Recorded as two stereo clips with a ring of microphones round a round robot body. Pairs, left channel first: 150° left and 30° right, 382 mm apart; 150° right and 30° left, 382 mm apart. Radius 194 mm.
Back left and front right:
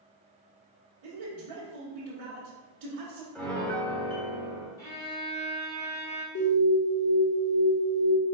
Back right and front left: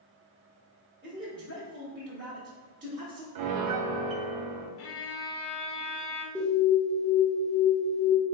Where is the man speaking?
35° right, 1.2 m.